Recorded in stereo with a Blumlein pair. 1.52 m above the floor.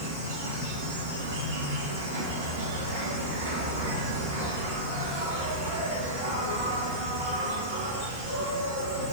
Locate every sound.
0.0 s an insect: 65° right, 2.5 m